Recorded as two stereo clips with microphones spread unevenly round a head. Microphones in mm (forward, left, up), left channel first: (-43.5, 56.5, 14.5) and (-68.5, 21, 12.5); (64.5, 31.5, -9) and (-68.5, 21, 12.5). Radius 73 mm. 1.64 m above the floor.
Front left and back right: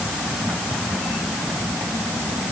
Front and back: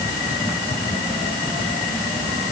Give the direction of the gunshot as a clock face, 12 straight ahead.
I don't hear a gunshot.